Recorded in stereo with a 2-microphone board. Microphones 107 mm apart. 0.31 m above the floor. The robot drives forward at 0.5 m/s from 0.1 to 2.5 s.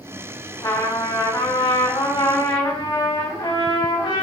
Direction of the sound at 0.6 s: 40° left (ahead or behind).